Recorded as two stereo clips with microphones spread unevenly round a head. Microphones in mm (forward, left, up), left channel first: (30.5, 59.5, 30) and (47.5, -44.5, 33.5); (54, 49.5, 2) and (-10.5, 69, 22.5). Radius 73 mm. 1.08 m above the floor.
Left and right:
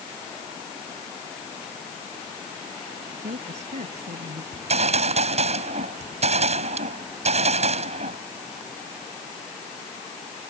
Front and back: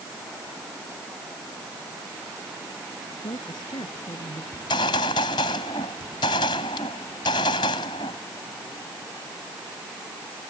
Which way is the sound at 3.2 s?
65° right.